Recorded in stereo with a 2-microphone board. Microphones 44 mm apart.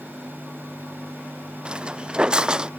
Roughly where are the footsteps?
Right.